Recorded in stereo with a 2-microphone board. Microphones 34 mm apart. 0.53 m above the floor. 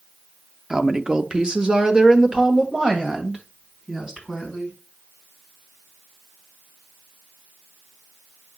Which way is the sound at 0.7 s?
20° right (ahead or behind).